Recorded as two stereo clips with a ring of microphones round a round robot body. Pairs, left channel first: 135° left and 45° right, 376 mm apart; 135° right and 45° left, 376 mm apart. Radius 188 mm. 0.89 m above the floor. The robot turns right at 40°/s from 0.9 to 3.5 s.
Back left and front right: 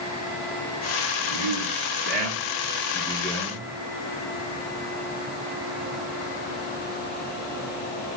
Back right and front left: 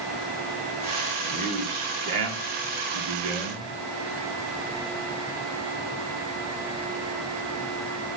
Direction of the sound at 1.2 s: 30° right.